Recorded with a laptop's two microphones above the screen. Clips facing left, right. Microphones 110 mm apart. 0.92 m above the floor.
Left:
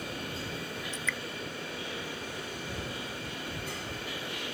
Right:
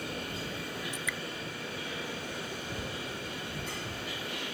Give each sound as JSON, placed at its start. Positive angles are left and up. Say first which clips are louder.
{"t": 0.9, "sound": "dripping", "louder": "left 1 dB", "side_deg": -10}